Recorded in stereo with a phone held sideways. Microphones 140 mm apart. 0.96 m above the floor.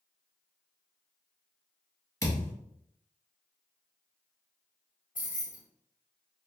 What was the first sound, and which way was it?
A thud, 25° left (ahead or behind).